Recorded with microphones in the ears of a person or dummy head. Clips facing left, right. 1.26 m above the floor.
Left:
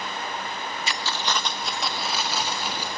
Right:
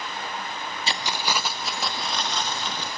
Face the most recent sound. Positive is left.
turn(degrees=5)  # may be behind; listen again after turning